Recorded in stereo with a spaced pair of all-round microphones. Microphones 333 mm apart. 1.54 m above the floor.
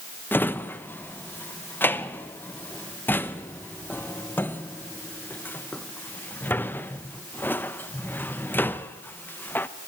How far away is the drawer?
About 0.7 m.